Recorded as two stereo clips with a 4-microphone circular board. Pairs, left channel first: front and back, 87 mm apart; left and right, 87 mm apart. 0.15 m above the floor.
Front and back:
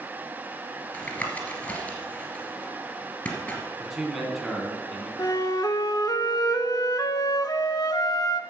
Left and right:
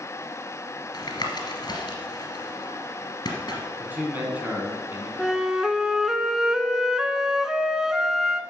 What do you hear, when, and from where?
0.9 s tapping: 65° left, 2 m
3.8 s a man speaking: 90° right, 1.8 m
5.2 s a flute: 10° right, 0.5 m